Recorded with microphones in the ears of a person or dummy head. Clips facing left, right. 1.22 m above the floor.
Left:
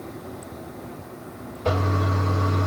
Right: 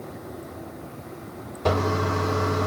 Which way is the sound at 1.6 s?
80° right.